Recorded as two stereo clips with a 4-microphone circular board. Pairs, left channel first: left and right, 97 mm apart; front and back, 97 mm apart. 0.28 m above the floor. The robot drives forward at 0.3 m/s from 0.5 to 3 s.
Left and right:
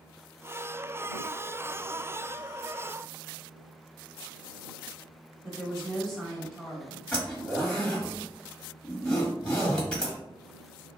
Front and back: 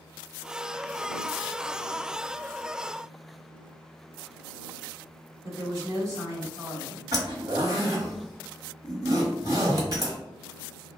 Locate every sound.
5.4 s a woman speaking: straight behind, 1.2 m
7.1 s a zipper: 165° left, 1.4 m